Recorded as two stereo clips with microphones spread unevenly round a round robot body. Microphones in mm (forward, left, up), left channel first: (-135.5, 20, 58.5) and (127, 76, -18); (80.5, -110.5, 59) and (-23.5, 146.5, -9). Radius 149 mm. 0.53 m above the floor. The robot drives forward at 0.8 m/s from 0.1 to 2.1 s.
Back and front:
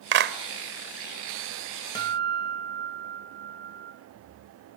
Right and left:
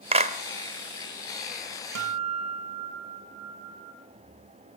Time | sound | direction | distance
0.1 | a clap | 50° left | 1.6 m
1.9 | a guitar | 110° left | 2.5 m